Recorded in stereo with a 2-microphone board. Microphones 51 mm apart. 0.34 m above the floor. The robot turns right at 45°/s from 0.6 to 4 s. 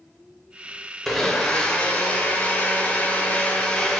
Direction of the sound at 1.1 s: 5° left (ahead or behind).